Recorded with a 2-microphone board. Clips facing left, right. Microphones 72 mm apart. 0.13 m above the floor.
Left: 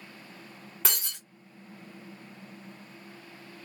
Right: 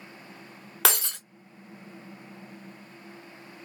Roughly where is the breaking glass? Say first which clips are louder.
Right 9 dB; right.